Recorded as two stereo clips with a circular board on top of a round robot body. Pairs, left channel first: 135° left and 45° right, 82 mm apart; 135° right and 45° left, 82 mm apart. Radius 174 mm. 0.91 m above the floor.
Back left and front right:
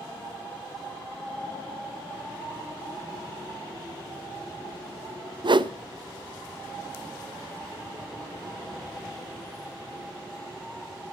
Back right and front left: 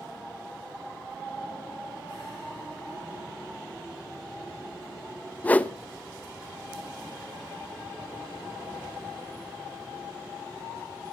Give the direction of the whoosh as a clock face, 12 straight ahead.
2 o'clock.